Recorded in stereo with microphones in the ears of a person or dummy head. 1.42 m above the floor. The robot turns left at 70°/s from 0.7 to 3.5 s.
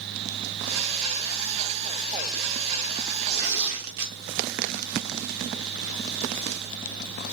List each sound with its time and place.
3.3 s tearing paper: 50° right (ahead or behind), 0.8 m; by 4.2 s 65° right (ahead or behind), 0.8 m